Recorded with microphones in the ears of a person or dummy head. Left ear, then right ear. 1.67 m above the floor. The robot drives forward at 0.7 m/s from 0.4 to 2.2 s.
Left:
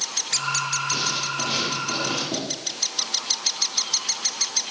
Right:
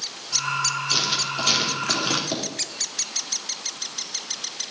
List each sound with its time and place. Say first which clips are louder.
0.9 s writing: right 2 dB; 55° right (ahead or behind), 3.5 m; by 2.4 s 70° right (ahead or behind), 3 m